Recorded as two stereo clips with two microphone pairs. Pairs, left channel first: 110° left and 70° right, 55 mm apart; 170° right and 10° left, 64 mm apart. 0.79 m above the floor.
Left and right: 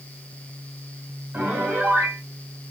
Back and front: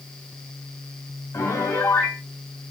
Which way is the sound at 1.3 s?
120° right.